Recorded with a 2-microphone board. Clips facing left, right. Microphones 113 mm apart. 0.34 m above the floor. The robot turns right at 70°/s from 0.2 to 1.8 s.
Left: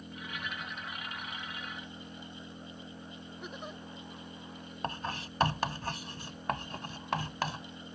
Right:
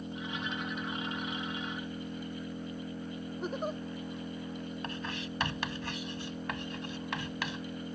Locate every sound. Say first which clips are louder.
0.0 s an engine running: right 5 dB; 150° right; by 8.0 s 35° right
3.4 s a giggle: right 9 dB; 40° right (ahead or behind)
4.8 s writing: left 1 dB; 40° left (ahead or behind)